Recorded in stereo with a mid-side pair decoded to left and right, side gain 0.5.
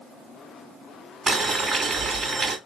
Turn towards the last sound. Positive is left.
turn(degrees=-30)